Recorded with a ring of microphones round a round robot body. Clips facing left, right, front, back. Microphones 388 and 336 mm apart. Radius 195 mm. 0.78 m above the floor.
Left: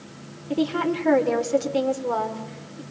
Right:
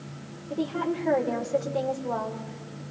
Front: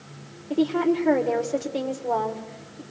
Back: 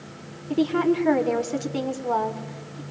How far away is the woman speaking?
About 2.5 m.